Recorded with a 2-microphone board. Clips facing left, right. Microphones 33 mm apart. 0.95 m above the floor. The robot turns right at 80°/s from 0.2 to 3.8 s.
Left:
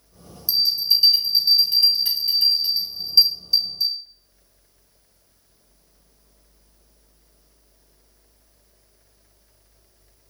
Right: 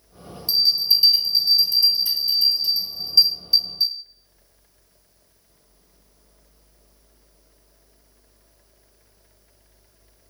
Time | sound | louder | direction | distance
0.5 | a bell | right 1 dB | 60° right | 1.7 m